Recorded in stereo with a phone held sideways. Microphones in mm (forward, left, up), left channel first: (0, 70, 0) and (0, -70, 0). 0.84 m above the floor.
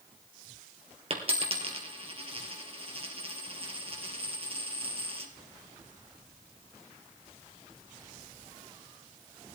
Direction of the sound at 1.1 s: 40° right (ahead or behind).